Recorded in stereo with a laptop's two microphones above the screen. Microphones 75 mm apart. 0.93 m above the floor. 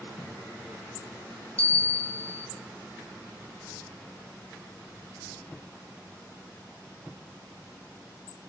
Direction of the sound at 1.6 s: 20° left (ahead or behind).